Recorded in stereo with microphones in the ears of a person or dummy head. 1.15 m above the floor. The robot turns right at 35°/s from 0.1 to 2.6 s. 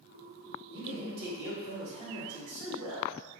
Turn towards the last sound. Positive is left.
turn(degrees=-90)